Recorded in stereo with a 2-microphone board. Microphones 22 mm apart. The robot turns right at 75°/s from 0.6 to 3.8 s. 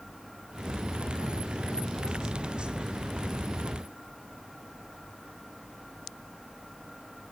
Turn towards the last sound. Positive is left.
No sound to turn to.